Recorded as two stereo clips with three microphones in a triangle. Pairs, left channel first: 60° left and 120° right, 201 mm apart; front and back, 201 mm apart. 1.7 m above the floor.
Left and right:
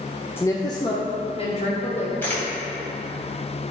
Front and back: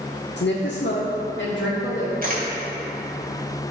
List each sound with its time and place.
0.4 s a woman speaking: 20° right, 0.6 m; by 2.1 s 5° left, 1.6 m
2.2 s a camera shutter: 140° left, 2 m